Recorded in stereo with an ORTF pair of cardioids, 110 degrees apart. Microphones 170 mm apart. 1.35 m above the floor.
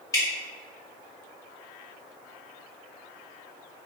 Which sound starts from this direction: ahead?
Dripping, at 0.1 s.